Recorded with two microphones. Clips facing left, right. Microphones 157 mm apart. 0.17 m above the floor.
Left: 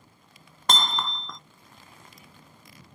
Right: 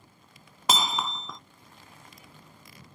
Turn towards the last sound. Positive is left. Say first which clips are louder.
# even
turn(degrees=-5)  # may be behind; listen again after turning